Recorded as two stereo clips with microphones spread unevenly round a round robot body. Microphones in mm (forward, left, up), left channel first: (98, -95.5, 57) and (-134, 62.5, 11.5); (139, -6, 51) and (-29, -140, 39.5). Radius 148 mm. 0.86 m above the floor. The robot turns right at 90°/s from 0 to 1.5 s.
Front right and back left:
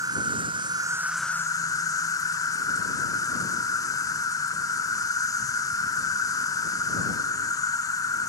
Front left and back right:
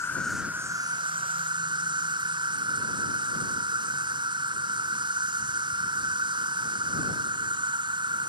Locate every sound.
0.0 s an insect: 105° left; by 8.3 s 120° right